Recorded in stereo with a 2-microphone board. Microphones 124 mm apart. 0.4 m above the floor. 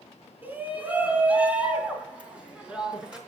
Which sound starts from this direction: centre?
A shout, at 0.4 s.